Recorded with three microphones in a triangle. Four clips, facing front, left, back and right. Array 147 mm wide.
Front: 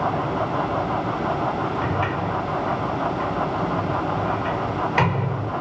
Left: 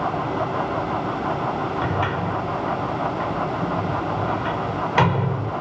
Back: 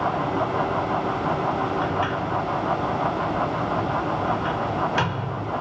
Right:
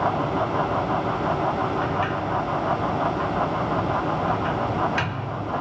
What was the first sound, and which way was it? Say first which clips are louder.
A sliding door: left 1 dB, even; 70° left.